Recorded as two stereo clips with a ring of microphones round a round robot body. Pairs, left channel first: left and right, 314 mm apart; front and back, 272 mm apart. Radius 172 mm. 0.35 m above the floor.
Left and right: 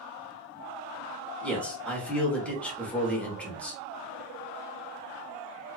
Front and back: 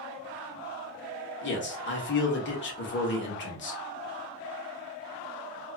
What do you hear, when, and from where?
1.4 s a man speaking: 5° left, 1.0 m